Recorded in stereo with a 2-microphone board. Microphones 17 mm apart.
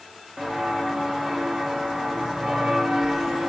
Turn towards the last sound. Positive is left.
turn(degrees=-70)  # may be behind; listen again after turning